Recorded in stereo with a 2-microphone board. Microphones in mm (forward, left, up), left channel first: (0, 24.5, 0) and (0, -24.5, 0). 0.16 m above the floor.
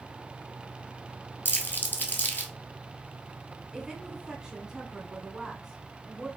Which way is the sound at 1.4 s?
45° left (ahead or behind).